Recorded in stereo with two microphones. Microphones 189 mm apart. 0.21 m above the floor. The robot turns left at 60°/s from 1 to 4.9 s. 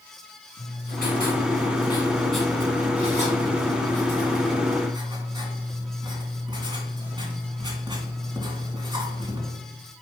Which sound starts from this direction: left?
Writing, at 0.6 s.